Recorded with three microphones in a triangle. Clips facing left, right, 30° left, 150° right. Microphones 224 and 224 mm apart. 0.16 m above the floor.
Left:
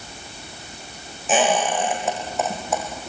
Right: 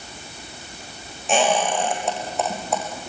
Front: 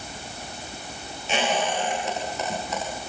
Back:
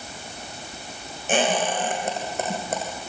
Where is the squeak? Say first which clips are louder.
Even, back 3 dB; 175° left, 5.5 m.